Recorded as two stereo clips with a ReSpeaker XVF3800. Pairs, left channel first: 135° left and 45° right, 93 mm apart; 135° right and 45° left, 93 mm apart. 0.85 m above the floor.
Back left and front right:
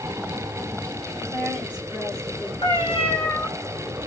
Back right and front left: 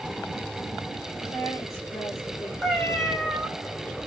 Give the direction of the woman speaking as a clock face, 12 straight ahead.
3 o'clock.